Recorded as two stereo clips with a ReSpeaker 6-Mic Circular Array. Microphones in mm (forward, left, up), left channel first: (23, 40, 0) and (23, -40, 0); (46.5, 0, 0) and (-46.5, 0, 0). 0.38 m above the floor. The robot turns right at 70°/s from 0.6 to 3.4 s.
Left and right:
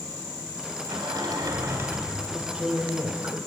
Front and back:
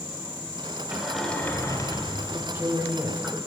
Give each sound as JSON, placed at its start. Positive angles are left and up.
{"t": 0.9, "sound": "a sliding door", "azimuth_deg": -105, "distance_m": 1.5}
{"t": 2.3, "sound": "a man speaking", "azimuth_deg": -165, "distance_m": 1.0}